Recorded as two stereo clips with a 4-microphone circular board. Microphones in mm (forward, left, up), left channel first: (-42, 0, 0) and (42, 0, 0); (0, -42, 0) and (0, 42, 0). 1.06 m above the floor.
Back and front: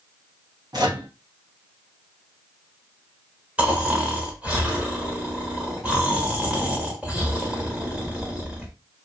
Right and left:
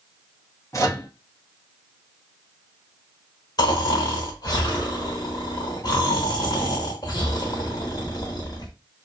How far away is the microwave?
About 0.8 m.